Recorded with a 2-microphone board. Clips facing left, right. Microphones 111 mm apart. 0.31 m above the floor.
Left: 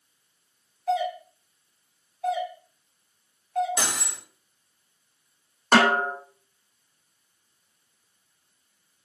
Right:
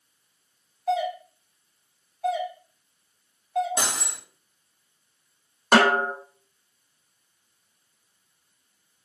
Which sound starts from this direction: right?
Cutlery clinking, at 3.8 s.